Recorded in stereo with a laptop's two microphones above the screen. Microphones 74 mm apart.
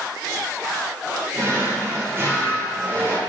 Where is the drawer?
35° right (ahead or behind), 1.9 m.